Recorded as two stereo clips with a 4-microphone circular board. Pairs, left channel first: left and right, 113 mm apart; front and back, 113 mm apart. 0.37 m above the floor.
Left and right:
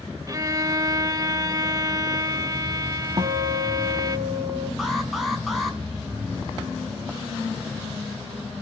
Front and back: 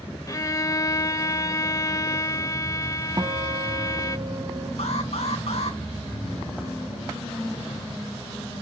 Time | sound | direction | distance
0.3 | a violin | 45° right | 0.7 m
3.2 | a guitar | 130° right | 1.4 m
4.8 | an alarm | straight ahead | 4.5 m